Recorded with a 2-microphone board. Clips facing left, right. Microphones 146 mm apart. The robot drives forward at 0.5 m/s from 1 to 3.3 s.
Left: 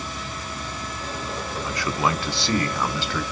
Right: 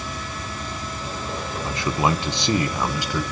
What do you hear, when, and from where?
1.6 s a man speaking: 25° right (ahead or behind), 0.7 m; by 3.2 s 15° right (ahead or behind), 1.2 m